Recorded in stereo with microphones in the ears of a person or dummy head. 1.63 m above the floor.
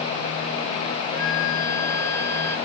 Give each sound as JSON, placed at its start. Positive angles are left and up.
{"t": 1.1, "sound": "a flute", "side_deg": 50, "distance_m": 1.8}